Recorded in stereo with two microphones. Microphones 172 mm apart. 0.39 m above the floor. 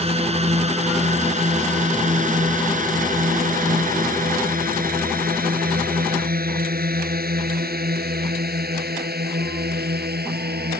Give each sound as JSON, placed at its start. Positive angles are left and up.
{"t": 0.0, "sound": "a drone", "side_deg": -40}